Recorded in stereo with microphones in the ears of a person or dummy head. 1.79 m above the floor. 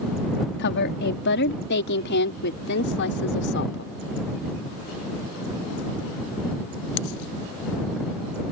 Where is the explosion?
No explosion in this recording.